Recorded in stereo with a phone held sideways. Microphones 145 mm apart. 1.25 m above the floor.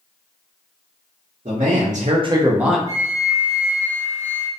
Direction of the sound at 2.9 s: 20° right (ahead or behind).